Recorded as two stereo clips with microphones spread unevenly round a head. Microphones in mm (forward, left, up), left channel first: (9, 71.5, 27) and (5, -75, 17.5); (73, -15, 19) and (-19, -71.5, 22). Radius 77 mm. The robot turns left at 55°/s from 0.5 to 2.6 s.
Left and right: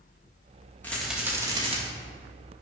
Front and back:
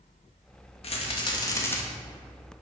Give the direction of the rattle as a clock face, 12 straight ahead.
12 o'clock.